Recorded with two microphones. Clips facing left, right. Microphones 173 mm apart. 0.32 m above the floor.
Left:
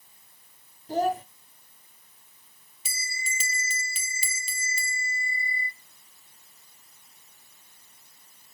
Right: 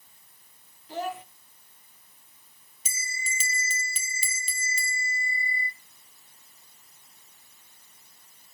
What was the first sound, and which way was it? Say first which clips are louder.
A child speaking: left 7 dB; 40° left (ahead or behind).